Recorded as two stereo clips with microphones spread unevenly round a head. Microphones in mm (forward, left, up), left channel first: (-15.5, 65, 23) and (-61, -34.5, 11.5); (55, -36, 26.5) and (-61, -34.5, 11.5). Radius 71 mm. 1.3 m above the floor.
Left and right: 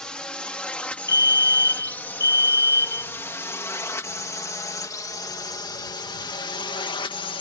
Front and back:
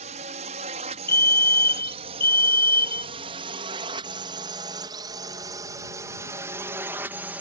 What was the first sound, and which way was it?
A drone, 150° left.